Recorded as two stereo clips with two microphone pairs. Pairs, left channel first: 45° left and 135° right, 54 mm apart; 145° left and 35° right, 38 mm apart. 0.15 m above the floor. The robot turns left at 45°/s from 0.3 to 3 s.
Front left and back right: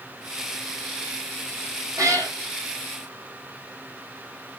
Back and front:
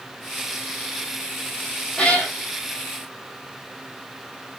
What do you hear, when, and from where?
2.0 s a cat meowing: 150° right, 1.4 m; by 2.3 s 165° right, 1.4 m